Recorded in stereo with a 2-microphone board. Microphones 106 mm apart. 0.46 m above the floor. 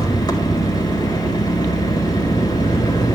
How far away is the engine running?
About 1.9 m.